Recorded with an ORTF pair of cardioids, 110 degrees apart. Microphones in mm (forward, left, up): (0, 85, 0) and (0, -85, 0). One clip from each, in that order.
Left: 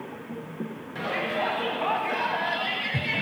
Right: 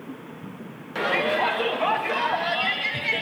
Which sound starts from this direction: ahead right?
A shout, at 0.9 s.